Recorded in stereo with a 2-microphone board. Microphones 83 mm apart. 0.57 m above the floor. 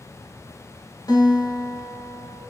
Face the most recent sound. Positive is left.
turn(degrees=50)  # may be behind; listen again after turning